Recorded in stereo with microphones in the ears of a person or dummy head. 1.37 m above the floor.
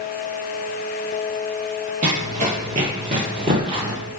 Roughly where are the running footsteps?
Right.